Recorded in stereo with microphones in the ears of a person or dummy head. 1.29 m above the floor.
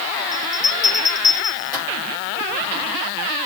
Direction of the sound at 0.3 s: 15° left (ahead or behind).